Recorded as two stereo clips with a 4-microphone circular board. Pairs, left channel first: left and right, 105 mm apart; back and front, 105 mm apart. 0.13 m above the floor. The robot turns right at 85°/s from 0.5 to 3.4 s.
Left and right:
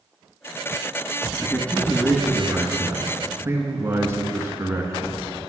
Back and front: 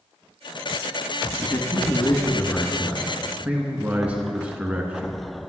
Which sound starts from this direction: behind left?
A man speaking, at 1.4 s.